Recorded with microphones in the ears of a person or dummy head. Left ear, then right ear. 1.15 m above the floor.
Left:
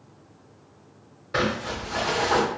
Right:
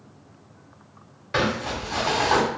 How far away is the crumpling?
About 1.3 m.